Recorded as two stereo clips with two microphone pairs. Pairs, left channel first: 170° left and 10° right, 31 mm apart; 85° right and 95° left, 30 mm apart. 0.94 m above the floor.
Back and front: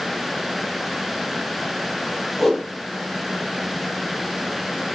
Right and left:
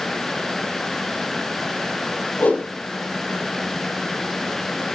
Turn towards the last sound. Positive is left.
turn(degrees=-105)